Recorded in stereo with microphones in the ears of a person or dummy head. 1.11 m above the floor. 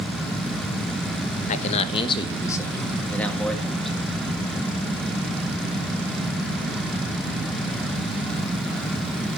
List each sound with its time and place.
1.5 s a man speaking: 45° left (ahead or behind), 1.1 m; by 3.9 s centre (ahead or behind), 2 m